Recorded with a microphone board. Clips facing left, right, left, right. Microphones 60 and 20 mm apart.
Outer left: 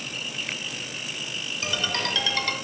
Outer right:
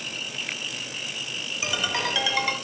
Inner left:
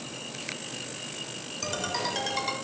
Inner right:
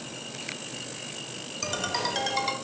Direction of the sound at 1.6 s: 10° right (ahead or behind).